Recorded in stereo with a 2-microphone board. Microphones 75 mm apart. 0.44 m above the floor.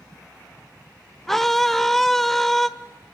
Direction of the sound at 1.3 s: 5° left (ahead or behind).